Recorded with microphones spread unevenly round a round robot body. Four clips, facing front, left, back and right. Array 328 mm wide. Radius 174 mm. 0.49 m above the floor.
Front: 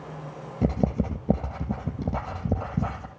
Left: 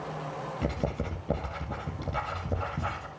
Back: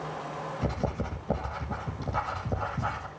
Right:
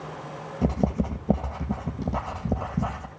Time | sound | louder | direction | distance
0.6 | writing | right 8 dB, front 8 dB | 30° right | 2.5 m